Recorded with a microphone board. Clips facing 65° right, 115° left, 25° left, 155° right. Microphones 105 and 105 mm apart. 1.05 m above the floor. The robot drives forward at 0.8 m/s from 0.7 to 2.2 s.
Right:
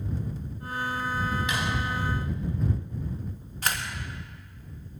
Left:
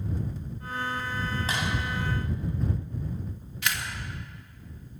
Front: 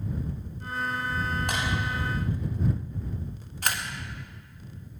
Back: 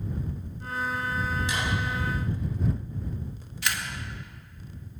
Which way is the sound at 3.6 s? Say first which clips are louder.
Right 1 dB, front 1 dB; 20° right.